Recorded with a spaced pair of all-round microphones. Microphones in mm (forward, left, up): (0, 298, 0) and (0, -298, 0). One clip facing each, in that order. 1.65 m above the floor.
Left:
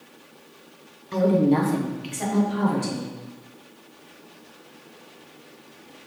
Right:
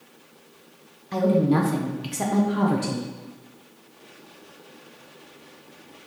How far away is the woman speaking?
About 0.8 m.